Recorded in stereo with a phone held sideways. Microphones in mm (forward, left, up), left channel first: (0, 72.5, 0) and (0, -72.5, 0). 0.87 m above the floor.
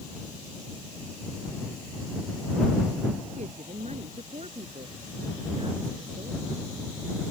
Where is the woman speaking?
50° right (ahead or behind); by 6.7 s 40° right (ahead or behind).